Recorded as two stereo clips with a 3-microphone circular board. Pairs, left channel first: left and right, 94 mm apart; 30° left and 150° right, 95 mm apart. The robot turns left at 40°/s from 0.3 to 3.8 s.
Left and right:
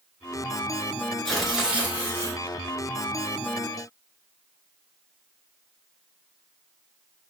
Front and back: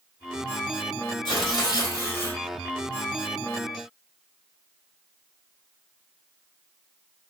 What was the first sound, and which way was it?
Tearing paper, 5° left.